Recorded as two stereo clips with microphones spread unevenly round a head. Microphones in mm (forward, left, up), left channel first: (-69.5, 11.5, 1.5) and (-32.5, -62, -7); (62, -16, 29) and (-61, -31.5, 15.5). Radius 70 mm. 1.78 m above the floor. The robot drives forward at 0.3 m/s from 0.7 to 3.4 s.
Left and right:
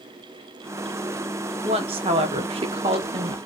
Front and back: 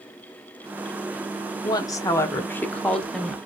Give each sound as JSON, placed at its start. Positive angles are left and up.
{"t": 1.6, "sound": "a woman speaking", "azimuth_deg": -50, "distance_m": 1.0}